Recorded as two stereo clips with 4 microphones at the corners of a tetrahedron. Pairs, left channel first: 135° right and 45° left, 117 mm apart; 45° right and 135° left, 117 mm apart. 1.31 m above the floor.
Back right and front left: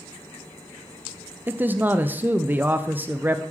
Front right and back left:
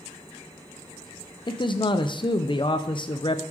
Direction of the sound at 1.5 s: 25° right.